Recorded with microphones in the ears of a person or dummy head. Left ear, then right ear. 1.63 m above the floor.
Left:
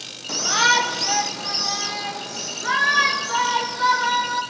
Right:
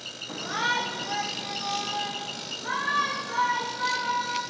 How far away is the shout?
About 1.4 m.